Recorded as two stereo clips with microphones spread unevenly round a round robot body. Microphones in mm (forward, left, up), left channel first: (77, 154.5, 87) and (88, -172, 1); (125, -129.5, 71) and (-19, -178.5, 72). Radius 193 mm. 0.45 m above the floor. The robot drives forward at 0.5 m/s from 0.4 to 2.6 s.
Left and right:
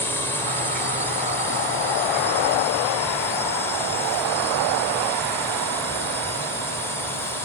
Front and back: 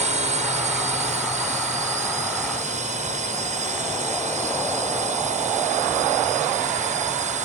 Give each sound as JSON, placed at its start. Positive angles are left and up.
{"t": 0.0, "sound": "a drone", "azimuth_deg": -175}